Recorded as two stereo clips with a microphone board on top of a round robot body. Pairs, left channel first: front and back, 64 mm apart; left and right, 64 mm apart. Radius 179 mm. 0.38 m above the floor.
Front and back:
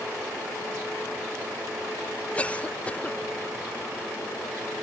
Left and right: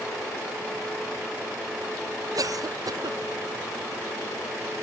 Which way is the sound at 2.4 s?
70° right.